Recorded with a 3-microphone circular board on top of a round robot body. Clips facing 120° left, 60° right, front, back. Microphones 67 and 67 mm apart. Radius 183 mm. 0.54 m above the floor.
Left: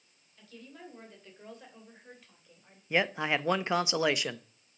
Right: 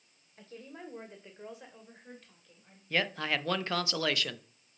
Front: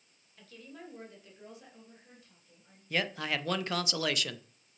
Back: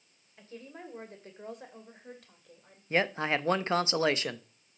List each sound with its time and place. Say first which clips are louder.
0.4 s a woman speaking: right 2 dB, back 3 dB; 115° right, 3 m; by 2.8 s 165° right, 3 m
2.9 s a man speaking: left 3 dB, back 5 dB; 170° left, 0.9 m